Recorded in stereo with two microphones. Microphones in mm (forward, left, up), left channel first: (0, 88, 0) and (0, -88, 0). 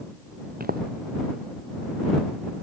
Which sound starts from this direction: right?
Footsteps, at 0.6 s.